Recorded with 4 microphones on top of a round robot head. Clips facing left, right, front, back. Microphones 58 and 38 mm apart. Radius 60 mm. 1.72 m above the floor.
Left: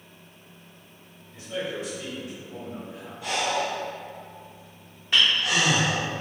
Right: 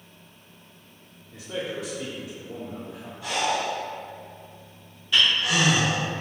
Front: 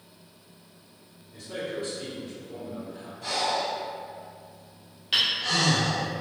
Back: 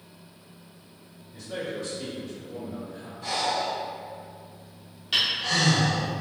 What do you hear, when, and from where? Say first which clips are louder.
1.3 s a man speaking: even, even; 80° right, 1.1 m
3.2 s breathing: right 1 dB, even; straight ahead, 1.9 m
5.1 s hammering: even, even; 60° left, 0.7 m